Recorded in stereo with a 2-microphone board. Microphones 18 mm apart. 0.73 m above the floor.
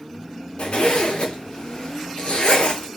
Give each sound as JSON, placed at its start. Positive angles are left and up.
{"t": 0.6, "sound": "a zipper", "side_deg": 85, "distance_m": 1.0}